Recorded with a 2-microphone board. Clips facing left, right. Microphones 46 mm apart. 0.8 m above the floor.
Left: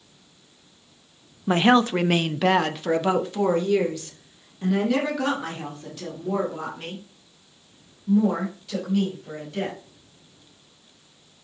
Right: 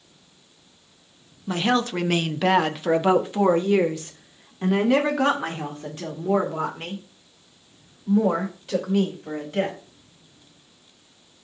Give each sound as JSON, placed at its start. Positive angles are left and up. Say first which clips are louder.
{"t": 1.5, "sound": "a woman speaking", "louder": "left 5 dB", "side_deg": 30, "distance_m": 0.6}